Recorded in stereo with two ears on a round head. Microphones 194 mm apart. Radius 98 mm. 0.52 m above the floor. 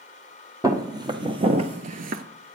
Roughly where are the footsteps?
Centre.